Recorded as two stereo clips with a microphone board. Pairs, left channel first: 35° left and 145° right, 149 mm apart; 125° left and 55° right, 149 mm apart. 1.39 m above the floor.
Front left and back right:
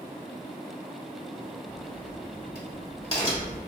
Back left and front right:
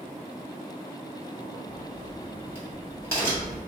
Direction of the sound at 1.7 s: 65° left.